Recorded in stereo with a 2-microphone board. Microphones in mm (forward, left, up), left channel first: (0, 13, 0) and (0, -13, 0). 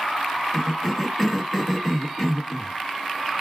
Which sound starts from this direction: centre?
A cough, at 0.5 s.